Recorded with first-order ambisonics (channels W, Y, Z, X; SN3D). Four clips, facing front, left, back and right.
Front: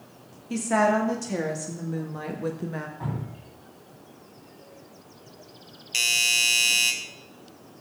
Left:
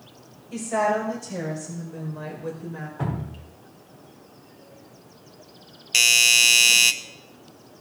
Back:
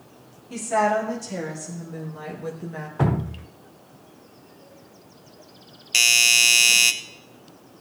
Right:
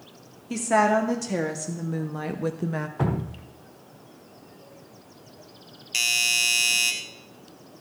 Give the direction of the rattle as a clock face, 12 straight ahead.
No rattle in this recording.